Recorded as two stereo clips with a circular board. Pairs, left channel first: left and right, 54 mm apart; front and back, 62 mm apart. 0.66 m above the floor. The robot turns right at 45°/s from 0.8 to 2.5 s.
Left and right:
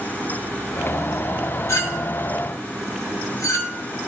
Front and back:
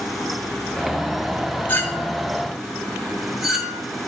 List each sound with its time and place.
1.7 s a clink: 60° left, 1.1 m; by 3.8 s 95° left, 1.1 m